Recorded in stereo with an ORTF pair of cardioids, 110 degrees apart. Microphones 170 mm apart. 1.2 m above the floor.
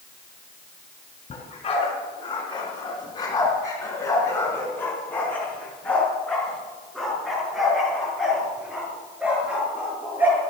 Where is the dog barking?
35° left, 5 m; by 10.4 s 10° right, 8 m.